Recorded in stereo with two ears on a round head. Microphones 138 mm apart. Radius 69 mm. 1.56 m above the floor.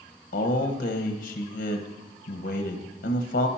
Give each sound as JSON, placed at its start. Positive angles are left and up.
{"t": 0.3, "sound": "a man speaking", "side_deg": 55, "distance_m": 1.2}